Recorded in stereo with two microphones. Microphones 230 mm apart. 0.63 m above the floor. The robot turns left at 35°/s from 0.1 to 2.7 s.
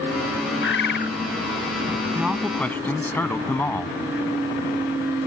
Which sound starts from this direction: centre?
A man speaking, at 2.1 s.